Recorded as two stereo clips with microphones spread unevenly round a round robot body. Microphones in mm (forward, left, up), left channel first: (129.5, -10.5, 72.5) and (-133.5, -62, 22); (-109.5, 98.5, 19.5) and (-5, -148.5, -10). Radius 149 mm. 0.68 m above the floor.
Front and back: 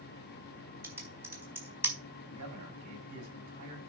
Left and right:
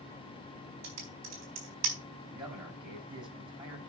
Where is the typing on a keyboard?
90° right, 4 m.